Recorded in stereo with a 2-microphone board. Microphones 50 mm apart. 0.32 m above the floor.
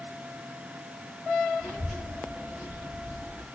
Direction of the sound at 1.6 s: 10° right (ahead or behind).